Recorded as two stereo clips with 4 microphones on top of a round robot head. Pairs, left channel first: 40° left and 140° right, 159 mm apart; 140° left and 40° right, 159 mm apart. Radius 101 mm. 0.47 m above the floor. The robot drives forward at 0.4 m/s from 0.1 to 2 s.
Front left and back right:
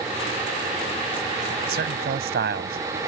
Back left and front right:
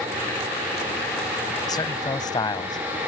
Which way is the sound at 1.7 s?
155° right.